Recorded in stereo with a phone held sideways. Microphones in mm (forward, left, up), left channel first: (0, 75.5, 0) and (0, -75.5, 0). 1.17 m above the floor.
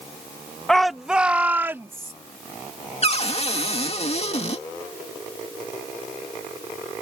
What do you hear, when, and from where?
0.7 s a shout: 5° left (ahead or behind); by 2.1 s 20° right (ahead or behind)
3.0 s a cupboard door: 45° left (ahead or behind)